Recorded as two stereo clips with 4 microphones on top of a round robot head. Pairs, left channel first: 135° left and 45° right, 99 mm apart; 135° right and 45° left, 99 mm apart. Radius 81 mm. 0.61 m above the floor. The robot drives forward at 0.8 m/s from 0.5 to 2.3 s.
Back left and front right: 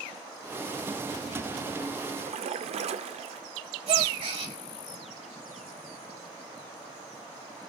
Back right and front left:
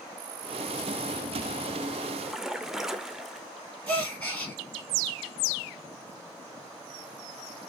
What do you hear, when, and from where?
2.2 s a splash: 35° right, 0.6 m; by 3.5 s 40° right, 0.6 m
3.9 s a gasp: 55° right, 4.5 m